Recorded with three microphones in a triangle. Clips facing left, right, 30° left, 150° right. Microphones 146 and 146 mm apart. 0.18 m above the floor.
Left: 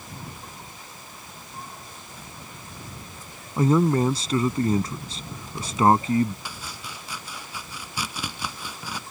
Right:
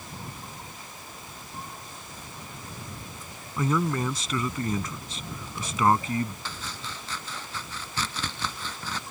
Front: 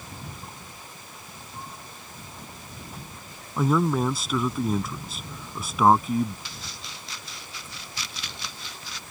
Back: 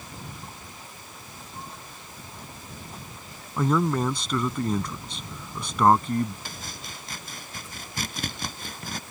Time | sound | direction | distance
3.6 | a man speaking | 110° left | ?
6.5 | chopping | 170° left | ?